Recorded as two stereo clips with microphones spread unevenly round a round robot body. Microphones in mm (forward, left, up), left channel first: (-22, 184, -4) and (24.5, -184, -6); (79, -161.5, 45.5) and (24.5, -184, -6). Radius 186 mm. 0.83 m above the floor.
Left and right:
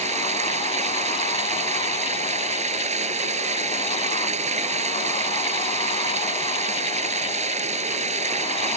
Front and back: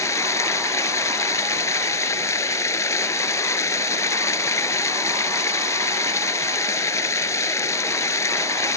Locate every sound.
0.0 s running water: 10° right